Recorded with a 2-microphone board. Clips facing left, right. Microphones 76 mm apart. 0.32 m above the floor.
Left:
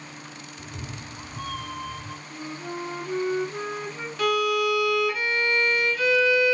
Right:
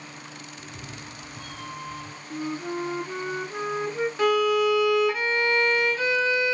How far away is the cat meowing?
About 1.5 m.